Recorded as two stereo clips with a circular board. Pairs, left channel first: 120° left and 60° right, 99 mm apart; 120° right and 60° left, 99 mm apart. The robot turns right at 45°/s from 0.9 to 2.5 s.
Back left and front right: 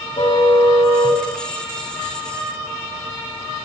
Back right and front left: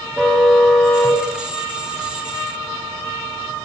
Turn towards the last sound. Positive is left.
turn(degrees=-135)